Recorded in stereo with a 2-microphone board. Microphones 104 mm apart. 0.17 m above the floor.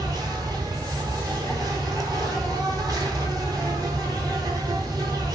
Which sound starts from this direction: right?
An insect, at 0.0 s.